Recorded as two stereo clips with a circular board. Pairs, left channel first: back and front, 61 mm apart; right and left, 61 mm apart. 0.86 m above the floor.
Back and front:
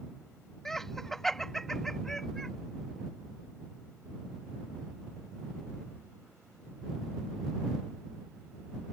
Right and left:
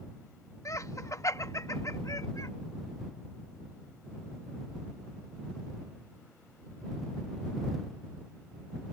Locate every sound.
0.7 s laughter: 100° right